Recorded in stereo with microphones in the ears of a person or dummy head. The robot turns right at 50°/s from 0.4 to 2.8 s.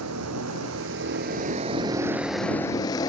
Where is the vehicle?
95° right; by 3.1 s 25° left.